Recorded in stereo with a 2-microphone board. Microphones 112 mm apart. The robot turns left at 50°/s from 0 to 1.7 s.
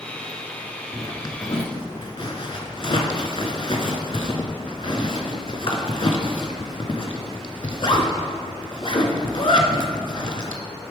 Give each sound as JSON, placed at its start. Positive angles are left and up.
{"t": 0.9, "sound": "a zipper", "side_deg": 20, "distance_m": 0.6}